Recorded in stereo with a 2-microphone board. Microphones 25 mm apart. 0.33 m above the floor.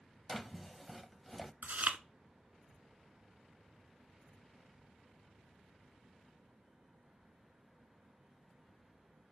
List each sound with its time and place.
0.3 s a drawer: 5° right (ahead or behind), 0.6 m
1.6 s chewing: 80° right, 0.6 m